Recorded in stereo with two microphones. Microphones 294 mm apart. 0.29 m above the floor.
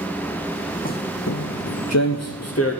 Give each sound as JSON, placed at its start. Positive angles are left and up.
{"t": 0.8, "sound": "footsteps", "side_deg": 30, "distance_m": 0.6}